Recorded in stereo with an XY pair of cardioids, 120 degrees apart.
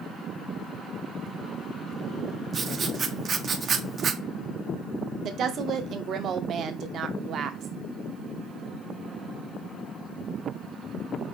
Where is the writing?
35° right, 0.6 m.